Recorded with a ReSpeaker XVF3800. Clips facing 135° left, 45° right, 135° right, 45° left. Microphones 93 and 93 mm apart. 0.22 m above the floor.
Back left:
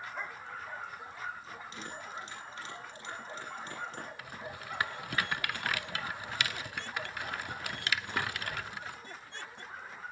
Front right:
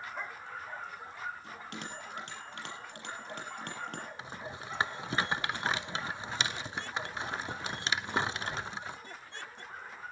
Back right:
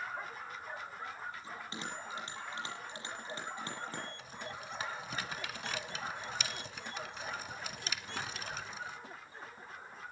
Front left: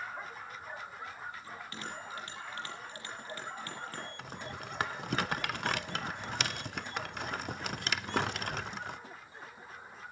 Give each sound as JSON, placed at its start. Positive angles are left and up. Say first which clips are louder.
{"t": 1.4, "sound": "a bell", "louder": "front right 1 dB, even", "azimuth_deg": -65, "distance_m": 7.0}
{"t": 4.2, "sound": "a rattle", "louder": "front right 1 dB, front left 2 dB", "azimuth_deg": 20, "distance_m": 0.5}